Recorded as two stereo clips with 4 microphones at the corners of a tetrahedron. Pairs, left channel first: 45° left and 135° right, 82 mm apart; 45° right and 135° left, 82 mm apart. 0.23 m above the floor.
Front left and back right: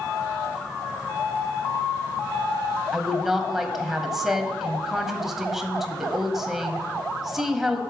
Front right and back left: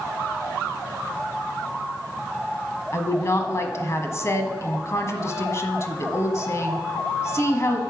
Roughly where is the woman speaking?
Ahead right.